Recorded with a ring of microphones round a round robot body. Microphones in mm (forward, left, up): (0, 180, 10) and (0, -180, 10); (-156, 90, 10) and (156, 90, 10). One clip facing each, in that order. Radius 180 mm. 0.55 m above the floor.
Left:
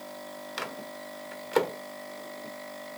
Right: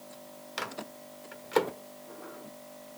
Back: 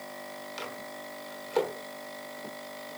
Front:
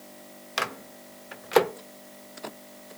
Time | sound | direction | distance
0.6 | a microwave | straight ahead | 1.0 m